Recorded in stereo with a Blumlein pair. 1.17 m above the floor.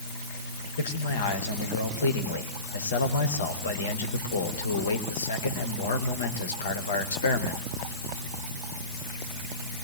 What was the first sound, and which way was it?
A man speaking, 70° left.